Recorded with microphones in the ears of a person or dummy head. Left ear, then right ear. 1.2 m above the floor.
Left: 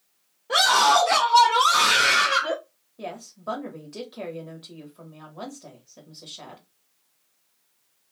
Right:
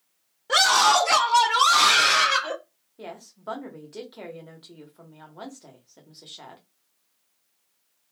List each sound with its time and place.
0.5 s a scream: 75° right (ahead or behind), 1.3 m; by 2.6 s 20° right (ahead or behind), 1.1 m
3.0 s a woman speaking: 10° right (ahead or behind), 0.9 m